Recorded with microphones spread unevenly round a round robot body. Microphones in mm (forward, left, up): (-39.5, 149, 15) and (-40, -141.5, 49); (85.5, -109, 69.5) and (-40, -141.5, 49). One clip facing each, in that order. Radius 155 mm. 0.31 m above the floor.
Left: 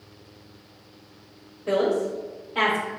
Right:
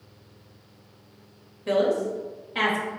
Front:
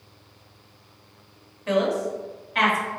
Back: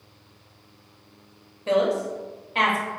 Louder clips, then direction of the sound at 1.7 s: Left 1 dB, back 1 dB; 130° right.